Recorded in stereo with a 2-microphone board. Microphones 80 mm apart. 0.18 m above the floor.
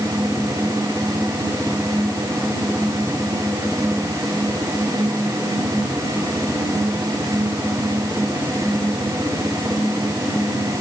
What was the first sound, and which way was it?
Only background noise.